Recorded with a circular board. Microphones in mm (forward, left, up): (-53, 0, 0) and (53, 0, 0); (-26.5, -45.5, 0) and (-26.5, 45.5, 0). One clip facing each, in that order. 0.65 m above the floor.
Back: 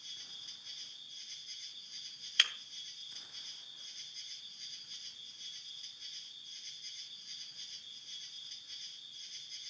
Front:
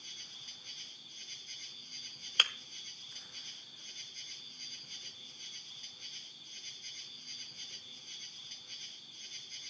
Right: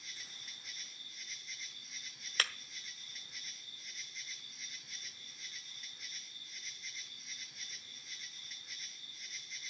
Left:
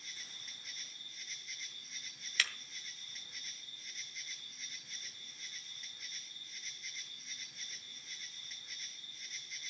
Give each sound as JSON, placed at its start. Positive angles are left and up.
{"t": 0.0, "sound": "an insect", "azimuth_deg": -5, "distance_m": 2.0}
{"t": 2.4, "sound": "breaking glass", "azimuth_deg": -45, "distance_m": 1.0}